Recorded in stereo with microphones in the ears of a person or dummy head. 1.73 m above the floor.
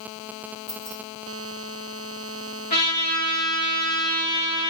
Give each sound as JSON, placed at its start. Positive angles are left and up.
{"t": 0.7, "sound": "keys jangling", "side_deg": 20, "distance_m": 0.9}
{"t": 2.7, "sound": "a trumpet", "side_deg": 50, "distance_m": 4.5}